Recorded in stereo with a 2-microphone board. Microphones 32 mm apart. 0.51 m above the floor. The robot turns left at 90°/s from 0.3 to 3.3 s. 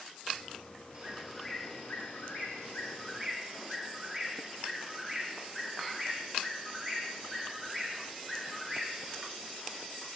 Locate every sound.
0.9 s a bird: 140° right, 3.5 m; by 10.0 s 10° left, 3.5 m